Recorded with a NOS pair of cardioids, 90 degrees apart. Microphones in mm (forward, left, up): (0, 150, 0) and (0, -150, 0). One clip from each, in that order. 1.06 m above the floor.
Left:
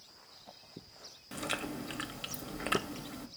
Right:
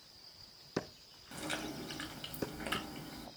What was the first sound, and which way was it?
Chewing, 30° left.